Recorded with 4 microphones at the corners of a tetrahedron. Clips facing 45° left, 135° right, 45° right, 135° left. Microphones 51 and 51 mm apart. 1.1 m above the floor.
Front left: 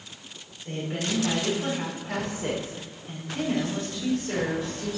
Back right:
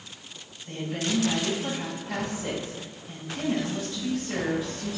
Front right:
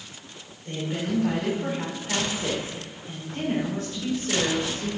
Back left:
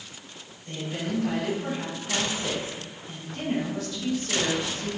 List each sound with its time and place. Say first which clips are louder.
0.7 s a woman speaking: even, front right 3 dB; 10° left, 4 m